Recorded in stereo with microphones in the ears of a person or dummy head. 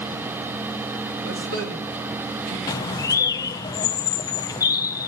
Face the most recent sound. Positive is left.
turn(degrees=20)  # may be behind; listen again after turning